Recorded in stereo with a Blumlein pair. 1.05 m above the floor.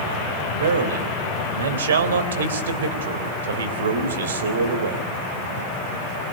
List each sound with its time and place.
0.6 s a man speaking: 65° right, 3.5 m